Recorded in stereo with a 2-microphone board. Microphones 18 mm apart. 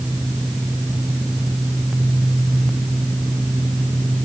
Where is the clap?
No clap in this recording.